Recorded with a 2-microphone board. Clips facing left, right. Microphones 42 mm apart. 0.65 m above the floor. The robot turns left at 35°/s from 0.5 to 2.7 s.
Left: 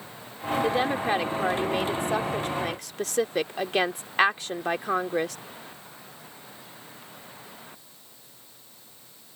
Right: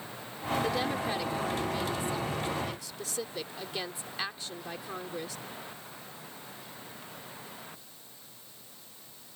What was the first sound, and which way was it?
A woman speaking, 150° left.